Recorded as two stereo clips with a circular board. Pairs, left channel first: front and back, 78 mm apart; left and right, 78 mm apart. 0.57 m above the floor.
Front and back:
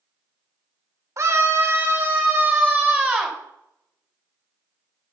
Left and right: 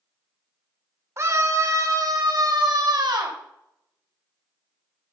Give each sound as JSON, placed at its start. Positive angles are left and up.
{"t": 1.2, "sound": "a scream", "azimuth_deg": -135, "distance_m": 2.0}